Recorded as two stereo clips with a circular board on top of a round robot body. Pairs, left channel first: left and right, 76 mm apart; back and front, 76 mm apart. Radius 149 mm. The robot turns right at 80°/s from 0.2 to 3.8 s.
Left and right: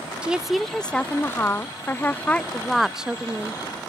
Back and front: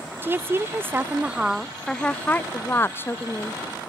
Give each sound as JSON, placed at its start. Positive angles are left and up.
{"t": 0.2, "sound": "a woman speaking", "azimuth_deg": -30}